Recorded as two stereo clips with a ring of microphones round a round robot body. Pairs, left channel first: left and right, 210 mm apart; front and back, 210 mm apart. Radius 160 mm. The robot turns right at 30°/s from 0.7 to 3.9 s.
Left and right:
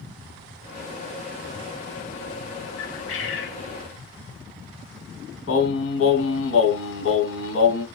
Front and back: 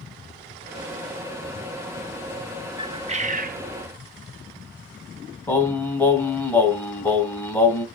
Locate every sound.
2.8 s a bird: 110° left, 0.7 m; by 3.6 s 135° left, 0.7 m
5.5 s singing: 85° left, 1.4 m